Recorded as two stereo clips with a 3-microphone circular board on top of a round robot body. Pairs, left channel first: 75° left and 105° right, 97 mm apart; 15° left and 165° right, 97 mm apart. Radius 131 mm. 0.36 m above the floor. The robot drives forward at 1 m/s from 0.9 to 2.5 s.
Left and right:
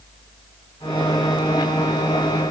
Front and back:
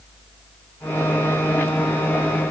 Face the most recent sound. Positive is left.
No sound to turn to.